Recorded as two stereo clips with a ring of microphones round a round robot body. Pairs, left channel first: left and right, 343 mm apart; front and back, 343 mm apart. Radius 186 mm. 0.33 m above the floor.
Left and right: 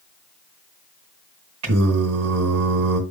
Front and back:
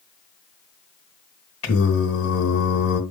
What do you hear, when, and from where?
1.6 s singing: 50° right, 3 m